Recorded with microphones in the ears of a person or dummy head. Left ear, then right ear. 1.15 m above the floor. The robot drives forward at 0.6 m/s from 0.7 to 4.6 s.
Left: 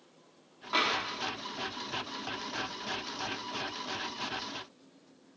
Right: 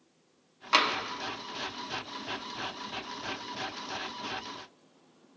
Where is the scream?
No scream in this recording.